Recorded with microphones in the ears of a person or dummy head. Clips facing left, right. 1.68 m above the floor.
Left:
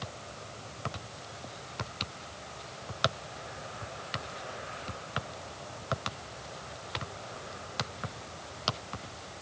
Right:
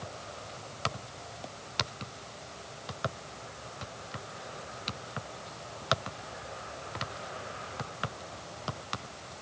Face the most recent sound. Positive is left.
No sound to turn to.